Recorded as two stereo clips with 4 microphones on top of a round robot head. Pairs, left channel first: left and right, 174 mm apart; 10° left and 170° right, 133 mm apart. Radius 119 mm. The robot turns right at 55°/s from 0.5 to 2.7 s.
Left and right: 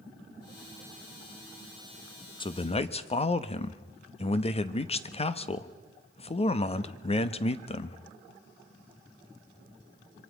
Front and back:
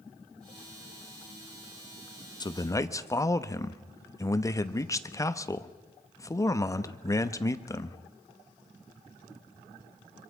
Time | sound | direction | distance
2.4 | a man speaking | 45° left | 1.0 m